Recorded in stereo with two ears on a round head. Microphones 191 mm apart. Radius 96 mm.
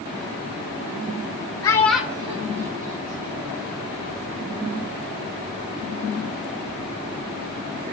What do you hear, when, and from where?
1.6 s a child speaking: 15° left (ahead or behind), 0.8 m; by 3.6 s 40° right (ahead or behind), 1.8 m